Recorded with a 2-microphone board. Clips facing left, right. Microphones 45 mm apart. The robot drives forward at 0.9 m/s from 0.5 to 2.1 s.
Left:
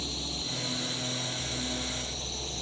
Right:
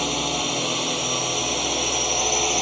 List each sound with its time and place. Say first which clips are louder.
0.0 s a drone: right 12 dB; 65° right (ahead or behind); by 2.6 s 70° right (ahead or behind)